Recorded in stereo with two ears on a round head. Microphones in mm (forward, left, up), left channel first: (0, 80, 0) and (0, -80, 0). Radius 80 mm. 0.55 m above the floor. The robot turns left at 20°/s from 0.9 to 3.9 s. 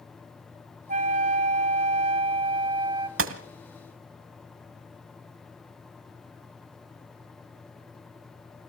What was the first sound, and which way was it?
A flute, 100° right.